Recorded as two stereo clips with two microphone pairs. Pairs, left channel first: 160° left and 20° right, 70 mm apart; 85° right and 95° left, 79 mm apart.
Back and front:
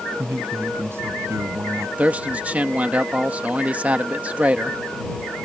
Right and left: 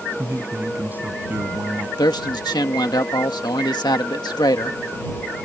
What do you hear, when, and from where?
0.2 s a man speaking: 35° left; by 1.9 s 30° left
2.0 s a man speaking: 85° right